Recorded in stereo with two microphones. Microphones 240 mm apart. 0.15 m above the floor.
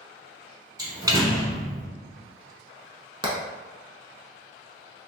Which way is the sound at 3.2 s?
20° right (ahead or behind).